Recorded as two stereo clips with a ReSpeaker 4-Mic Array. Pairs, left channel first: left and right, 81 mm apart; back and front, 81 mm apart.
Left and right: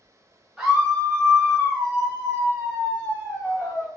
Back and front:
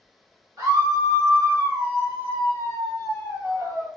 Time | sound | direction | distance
0.6 | a scream | 5° right | 1.6 m